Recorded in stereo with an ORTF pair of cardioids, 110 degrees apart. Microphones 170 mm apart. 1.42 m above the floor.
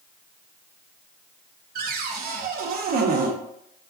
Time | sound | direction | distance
1.8 | a cupboard door | 60° right | 0.5 m